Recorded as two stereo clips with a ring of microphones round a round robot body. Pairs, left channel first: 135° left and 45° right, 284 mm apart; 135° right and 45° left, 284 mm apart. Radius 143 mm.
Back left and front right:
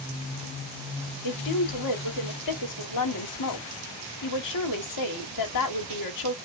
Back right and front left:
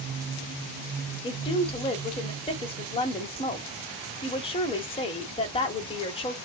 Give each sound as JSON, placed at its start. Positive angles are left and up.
{"t": 1.2, "sound": "a woman speaking", "azimuth_deg": 155, "distance_m": 1.6}